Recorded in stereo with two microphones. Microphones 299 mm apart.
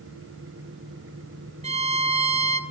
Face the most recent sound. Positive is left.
turn(degrees=-25)  # may be behind; listen again after turning